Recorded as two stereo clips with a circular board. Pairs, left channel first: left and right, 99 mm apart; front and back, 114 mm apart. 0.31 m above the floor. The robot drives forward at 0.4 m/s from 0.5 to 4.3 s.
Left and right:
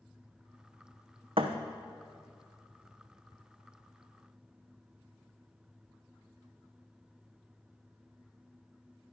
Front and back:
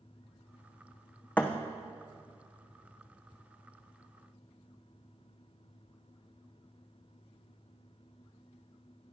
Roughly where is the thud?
Right.